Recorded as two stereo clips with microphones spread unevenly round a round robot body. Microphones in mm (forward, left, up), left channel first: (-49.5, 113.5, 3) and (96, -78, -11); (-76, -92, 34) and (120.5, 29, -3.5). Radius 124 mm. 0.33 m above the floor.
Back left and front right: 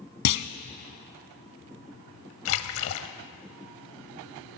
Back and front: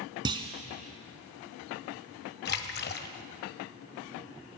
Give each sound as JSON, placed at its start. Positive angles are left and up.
{"t": 0.2, "sound": "a clunk", "azimuth_deg": 105, "distance_m": 0.8}
{"t": 2.5, "sound": "a splash", "azimuth_deg": 160, "distance_m": 0.8}